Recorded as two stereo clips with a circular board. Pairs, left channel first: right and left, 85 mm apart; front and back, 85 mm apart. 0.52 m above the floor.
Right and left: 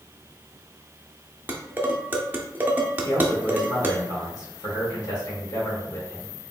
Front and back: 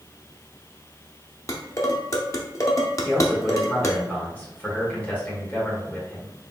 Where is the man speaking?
65° right, 2 m.